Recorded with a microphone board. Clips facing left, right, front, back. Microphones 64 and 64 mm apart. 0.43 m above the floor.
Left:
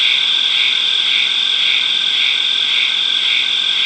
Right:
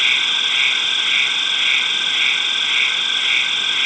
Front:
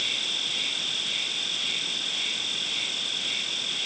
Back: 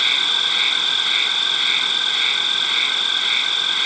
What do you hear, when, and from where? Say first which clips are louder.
0.0 s an insect: even, back 11 dB; 165° right